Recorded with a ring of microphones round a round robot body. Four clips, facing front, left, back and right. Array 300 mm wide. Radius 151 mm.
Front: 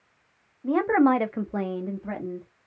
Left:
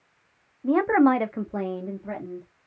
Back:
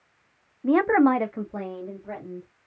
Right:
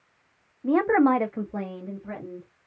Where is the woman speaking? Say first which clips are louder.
Left 1 dB, back 1 dB; 175° right, 0.7 m; by 2.5 s 20° left, 1.1 m.